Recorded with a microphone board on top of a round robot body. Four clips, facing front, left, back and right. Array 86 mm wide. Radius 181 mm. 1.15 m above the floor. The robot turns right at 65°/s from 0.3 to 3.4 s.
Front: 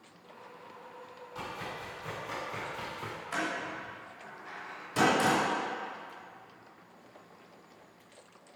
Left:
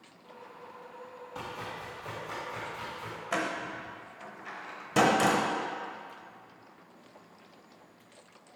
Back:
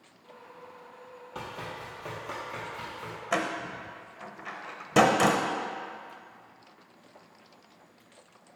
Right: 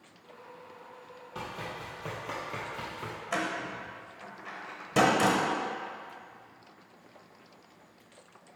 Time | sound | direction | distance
1.4 | running footsteps | 155° right | 2.5 m
3.3 | a door slam | 175° left | 0.7 m